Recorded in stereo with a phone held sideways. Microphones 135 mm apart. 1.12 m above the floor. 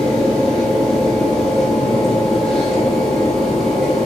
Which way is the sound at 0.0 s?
5° left (ahead or behind).